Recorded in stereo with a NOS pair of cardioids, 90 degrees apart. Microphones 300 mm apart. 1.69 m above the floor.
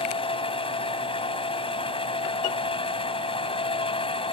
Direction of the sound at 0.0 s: 15° left.